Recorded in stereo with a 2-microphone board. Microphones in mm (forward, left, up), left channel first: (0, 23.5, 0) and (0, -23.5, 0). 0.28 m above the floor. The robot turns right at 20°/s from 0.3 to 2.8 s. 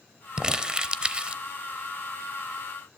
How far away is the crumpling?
About 0.8 m.